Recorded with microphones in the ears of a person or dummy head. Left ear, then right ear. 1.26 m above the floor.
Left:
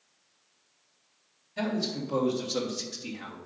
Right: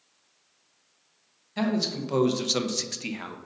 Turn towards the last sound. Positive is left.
turn(degrees=-35)  # may be behind; listen again after turning